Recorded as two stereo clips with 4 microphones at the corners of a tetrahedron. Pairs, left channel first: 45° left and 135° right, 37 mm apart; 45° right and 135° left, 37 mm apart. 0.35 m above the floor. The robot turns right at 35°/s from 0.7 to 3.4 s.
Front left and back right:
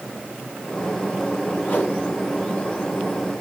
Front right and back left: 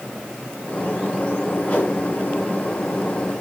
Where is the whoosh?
10° left, 4.5 m; by 1.9 s 20° left, 4.5 m.